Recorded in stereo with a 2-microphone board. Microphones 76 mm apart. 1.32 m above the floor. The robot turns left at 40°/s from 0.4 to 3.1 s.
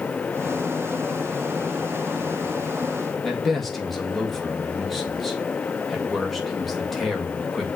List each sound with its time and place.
3.2 s a man speaking: centre (ahead or behind), 1.9 m